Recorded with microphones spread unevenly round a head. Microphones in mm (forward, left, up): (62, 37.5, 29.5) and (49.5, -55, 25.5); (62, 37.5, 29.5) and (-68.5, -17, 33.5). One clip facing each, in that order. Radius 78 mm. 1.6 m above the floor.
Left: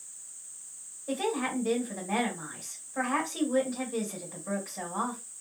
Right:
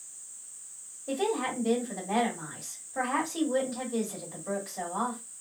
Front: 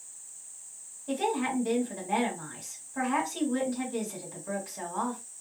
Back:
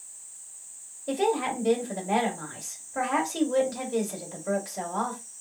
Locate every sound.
1.1 s a woman speaking: 175° right, 1.5 m